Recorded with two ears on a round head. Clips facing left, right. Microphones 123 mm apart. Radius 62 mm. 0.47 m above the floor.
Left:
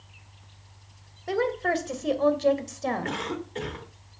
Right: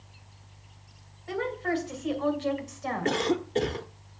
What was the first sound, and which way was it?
A woman speaking, 60° left (ahead or behind).